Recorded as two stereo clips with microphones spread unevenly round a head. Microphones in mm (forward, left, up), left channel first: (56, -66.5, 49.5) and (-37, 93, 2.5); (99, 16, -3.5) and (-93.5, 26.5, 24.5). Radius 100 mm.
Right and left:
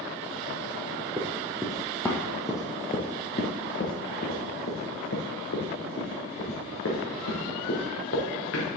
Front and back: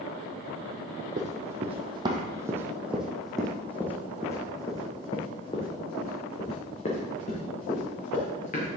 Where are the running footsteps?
150° right, 1.5 m; by 8.7 s 60° right, 4 m.